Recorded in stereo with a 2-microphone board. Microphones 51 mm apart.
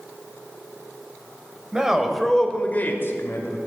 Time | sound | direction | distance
1.7 | a man speaking | 15° right (ahead or behind) | 2.0 m